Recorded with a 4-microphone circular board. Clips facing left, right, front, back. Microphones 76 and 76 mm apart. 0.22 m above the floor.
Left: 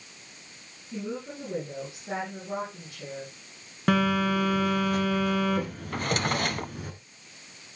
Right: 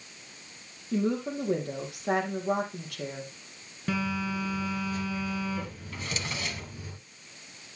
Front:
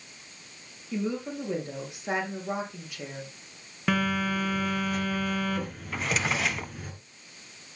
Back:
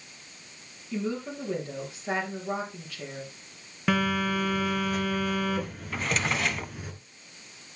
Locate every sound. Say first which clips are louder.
0.9 s a woman speaking: right 7 dB, front 1 dB; 75° right, 4.5 m
3.9 s a phone buzzing: left 7 dB, back 1 dB; 90° left, 2.5 m
5.9 s a drawer: left 9 dB, even; 90° left, 0.6 m